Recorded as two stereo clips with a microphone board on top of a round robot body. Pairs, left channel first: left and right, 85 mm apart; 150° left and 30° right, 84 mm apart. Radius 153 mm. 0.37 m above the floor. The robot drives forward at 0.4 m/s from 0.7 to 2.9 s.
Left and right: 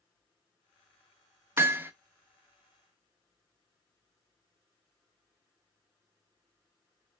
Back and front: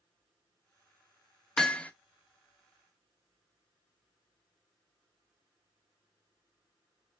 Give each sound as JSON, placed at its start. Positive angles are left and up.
{"t": 1.6, "sound": "hammering", "azimuth_deg": -130, "distance_m": 0.7}